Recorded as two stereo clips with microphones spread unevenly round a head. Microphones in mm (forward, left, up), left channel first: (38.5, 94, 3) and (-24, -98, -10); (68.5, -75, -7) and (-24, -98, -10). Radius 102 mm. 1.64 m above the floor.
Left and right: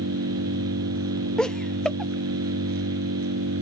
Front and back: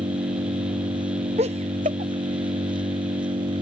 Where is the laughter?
160° left.